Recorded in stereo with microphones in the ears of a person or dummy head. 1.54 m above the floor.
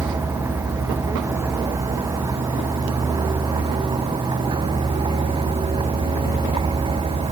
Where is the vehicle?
15° right (ahead or behind); by 7.3 s 25° right (ahead or behind).